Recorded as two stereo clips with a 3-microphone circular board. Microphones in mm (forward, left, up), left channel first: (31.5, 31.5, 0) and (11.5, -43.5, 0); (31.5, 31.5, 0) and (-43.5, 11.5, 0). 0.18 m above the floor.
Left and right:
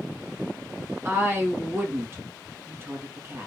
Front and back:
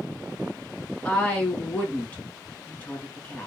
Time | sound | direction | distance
1.1 | a woman speaking | 55° right | 1.8 m